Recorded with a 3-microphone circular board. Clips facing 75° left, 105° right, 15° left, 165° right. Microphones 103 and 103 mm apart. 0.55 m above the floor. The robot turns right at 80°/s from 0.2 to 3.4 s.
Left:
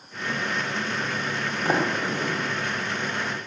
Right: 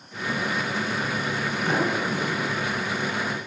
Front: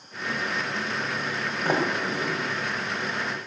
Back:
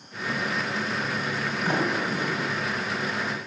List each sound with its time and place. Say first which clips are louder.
1.6 s a sliding door: left 1 dB, front 1 dB; 35° left, 3 m; by 2.4 s 95° left, 3 m